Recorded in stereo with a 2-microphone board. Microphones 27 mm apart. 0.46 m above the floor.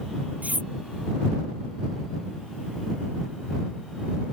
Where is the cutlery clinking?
70° right (ahead or behind).